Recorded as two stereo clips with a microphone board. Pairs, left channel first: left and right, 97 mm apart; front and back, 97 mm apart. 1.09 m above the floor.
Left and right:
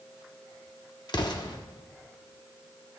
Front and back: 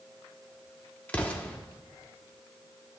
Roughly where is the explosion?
Left.